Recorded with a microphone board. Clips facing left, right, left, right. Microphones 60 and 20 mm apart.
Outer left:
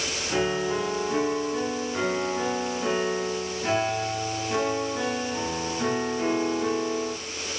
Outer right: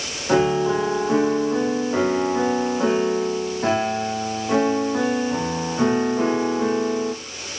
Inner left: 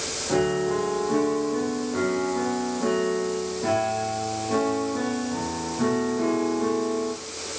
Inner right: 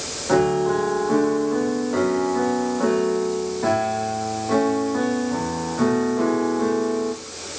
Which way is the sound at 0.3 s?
50° right (ahead or behind).